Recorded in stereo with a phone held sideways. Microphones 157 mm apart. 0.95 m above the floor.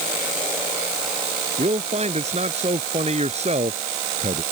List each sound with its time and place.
1.6 s a man speaking: 45° right (ahead or behind)